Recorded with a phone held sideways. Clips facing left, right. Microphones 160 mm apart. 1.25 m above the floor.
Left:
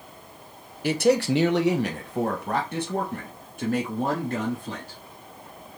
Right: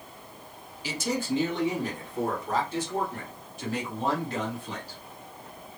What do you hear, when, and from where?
0.8 s a man speaking: 60° left (ahead or behind), 0.5 m; by 5.0 s 50° left (ahead or behind), 2 m